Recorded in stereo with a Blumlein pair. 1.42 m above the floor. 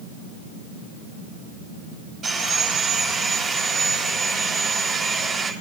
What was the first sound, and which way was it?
Sawing, 20° right.